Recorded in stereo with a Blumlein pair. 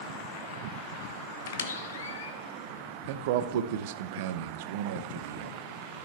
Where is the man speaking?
50° right, 0.7 m.